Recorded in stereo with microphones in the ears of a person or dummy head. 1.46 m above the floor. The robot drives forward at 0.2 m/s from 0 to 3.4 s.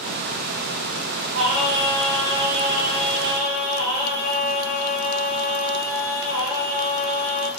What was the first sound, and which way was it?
Singing, 65° right (ahead or behind).